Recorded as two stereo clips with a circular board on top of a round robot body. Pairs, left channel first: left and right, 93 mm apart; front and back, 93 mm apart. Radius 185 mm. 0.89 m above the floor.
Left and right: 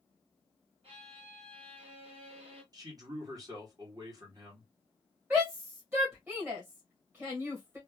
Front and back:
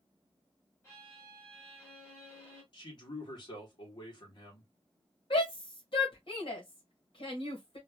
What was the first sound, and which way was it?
A violin, 65° right.